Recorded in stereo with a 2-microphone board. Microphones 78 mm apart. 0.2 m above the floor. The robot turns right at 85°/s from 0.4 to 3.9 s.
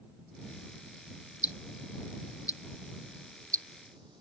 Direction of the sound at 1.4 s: 45° left (ahead or behind).